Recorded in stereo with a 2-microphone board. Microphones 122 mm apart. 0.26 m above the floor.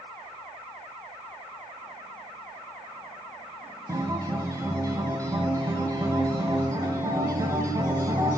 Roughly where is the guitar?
Right.